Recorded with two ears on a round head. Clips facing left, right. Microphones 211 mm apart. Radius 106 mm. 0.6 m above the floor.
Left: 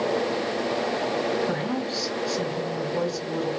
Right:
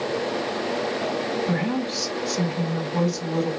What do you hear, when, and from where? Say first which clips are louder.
1.5 s a woman speaking: right 2 dB; 45° right (ahead or behind), 4 m